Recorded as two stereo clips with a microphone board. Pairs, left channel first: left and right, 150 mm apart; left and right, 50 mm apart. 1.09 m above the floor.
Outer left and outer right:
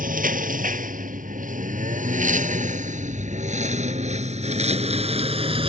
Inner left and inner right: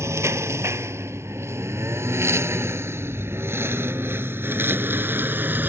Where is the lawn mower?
70° right (ahead or behind); by 5.7 s 40° right (ahead or behind).